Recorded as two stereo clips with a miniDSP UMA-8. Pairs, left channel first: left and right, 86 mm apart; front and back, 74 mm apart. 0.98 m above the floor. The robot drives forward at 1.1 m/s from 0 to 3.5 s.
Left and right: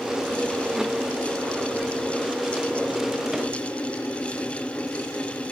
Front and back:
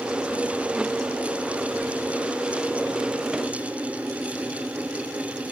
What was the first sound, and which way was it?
Only background noise.